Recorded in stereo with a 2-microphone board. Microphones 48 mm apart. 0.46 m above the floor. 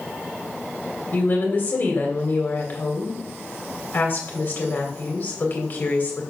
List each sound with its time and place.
1.1 s a woman speaking: 40° left (ahead or behind), 2 m